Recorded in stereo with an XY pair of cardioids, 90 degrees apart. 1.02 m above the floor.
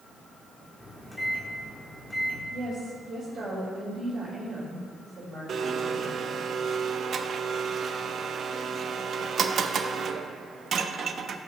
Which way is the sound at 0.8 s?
20° left.